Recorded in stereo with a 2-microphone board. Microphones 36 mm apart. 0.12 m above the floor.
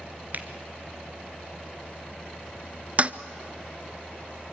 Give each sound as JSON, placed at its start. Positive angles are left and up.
{"t": 0.3, "sound": "a finger snap", "side_deg": -45, "distance_m": 1.4}
{"t": 3.0, "sound": "a toilet flushing", "side_deg": -35, "distance_m": 0.6}